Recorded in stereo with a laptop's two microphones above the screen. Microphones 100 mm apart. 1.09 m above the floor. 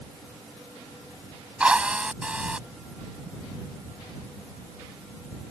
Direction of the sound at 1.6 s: 10° right (ahead or behind).